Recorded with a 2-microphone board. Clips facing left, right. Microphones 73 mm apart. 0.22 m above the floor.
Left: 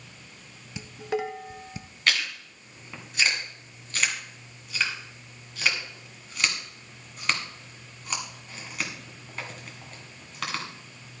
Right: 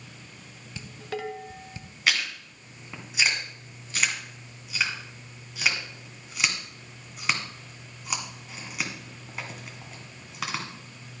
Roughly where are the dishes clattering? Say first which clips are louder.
Left 5 dB; centre.